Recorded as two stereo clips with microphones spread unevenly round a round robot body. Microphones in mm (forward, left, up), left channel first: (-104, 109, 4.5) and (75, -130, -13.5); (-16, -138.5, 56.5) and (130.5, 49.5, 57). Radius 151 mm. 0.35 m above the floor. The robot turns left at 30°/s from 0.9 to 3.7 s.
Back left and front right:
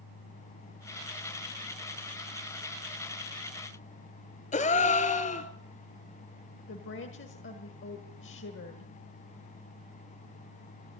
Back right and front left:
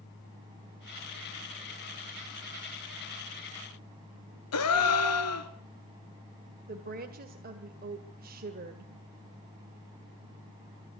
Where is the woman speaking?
85° left, 1.9 m.